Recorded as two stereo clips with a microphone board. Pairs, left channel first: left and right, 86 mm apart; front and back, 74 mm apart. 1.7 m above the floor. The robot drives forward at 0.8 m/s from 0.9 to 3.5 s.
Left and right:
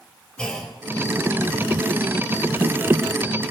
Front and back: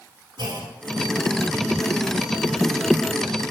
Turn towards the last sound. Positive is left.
turn(degrees=175)